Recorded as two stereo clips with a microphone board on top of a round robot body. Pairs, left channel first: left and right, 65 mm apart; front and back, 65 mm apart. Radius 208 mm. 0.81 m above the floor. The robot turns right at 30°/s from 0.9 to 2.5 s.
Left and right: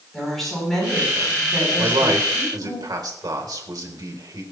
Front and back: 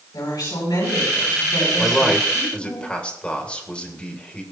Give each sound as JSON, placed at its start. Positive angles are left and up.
{"t": 0.1, "sound": "a woman speaking", "azimuth_deg": 5, "distance_m": 8.0}
{"t": 1.8, "sound": "a man speaking", "azimuth_deg": -95, "distance_m": 3.5}